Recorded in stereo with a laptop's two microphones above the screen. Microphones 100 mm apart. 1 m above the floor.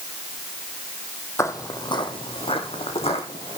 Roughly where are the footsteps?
Left.